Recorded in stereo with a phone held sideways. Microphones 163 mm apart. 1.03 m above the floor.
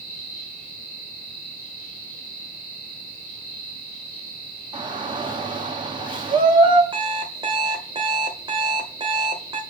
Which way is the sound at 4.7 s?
30° right (ahead or behind).